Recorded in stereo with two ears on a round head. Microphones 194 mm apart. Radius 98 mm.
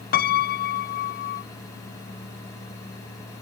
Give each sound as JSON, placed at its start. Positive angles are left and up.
{"t": 0.1, "sound": "a piano", "side_deg": 45}